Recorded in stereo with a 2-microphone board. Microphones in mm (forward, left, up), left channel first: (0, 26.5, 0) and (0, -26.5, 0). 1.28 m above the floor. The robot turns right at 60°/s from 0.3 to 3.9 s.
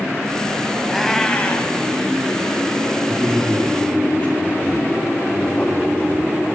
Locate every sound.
0.9 s a cat meowing: 5° right, 1.7 m; by 1.8 s 45° left, 1.7 m
3.1 s a man speaking: 20° right, 3 m; by 6.3 s 25° left, 3 m